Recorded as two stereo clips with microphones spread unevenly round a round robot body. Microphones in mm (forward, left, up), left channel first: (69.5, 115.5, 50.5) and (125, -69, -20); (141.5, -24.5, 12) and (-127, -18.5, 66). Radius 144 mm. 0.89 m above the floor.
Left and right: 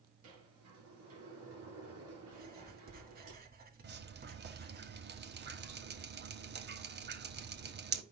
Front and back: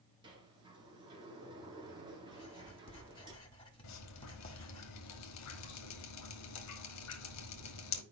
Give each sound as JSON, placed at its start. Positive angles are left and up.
{"t": 0.2, "sound": "a sliding door", "azimuth_deg": -110, "distance_m": 3.0}
{"t": 2.3, "sound": "writing", "azimuth_deg": -65, "distance_m": 1.9}
{"t": 3.8, "sound": "dripping", "azimuth_deg": -30, "distance_m": 1.2}